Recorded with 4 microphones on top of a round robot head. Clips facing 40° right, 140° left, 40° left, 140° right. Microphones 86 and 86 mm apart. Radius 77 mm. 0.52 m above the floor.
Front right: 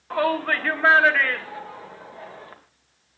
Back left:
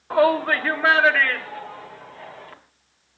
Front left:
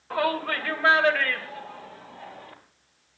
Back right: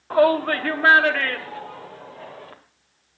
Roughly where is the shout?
Behind.